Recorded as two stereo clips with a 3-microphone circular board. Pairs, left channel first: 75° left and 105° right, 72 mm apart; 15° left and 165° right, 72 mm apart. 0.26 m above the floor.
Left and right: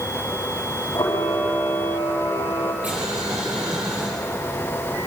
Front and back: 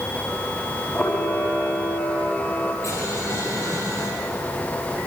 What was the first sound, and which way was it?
A camera shutter, 85° left.